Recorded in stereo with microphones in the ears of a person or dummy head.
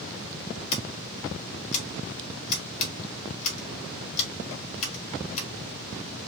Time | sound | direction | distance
0.7 | scissors | 40° left (ahead or behind) | 1.8 m